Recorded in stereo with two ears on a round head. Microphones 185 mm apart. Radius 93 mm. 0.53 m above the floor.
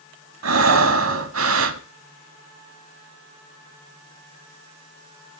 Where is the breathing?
70° right (ahead or behind), 1.0 m.